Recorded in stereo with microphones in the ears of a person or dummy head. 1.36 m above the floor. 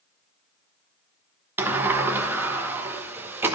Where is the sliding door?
10° right (ahead or behind), 1.0 m.